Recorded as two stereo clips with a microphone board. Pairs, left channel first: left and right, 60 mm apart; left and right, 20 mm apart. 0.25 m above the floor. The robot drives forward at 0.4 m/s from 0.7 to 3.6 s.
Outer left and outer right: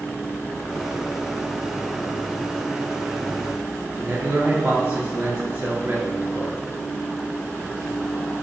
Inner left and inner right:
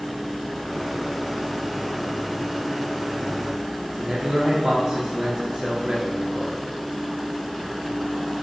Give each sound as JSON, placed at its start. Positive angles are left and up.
{"t": 4.0, "sound": "a man speaking", "side_deg": -30, "distance_m": 3.0}